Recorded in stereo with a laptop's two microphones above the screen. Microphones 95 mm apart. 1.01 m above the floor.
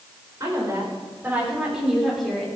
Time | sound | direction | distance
0.4 | a woman speaking | 35° right (ahead or behind) | 4 m